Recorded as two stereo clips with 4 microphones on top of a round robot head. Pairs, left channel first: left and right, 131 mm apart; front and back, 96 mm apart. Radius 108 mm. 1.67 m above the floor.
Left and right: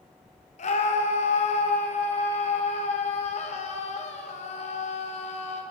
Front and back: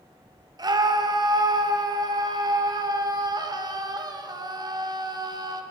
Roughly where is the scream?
Behind left.